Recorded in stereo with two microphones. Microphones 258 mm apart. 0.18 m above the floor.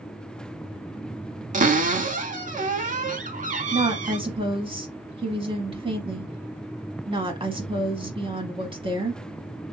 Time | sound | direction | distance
1.5 | a cupboard door | 30° right (ahead or behind) | 0.6 m
3.7 | a woman speaking | 20° right (ahead or behind) | 1.0 m